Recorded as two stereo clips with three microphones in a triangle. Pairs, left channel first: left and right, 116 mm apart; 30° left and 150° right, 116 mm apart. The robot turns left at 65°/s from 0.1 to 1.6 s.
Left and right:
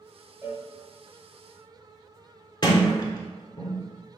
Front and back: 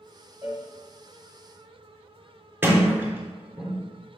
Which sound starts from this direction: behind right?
A cowbell, at 0.4 s.